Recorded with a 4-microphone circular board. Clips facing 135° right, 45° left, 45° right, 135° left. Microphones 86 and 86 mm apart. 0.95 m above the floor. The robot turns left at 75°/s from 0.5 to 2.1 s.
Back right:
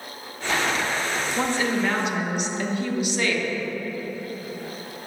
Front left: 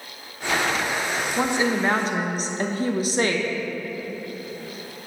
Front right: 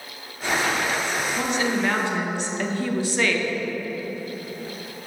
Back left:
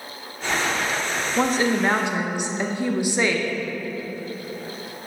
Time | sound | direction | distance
1.4 | a woman speaking | 125° left | 0.7 m